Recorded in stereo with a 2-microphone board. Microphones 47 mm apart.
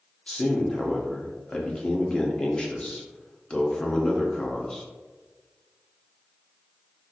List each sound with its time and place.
0.3 s a man speaking: 20° left (ahead or behind), 0.6 m